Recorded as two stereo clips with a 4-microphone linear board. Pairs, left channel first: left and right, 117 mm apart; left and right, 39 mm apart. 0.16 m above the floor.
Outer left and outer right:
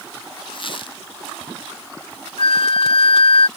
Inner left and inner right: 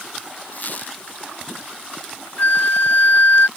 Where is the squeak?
50° left (ahead or behind).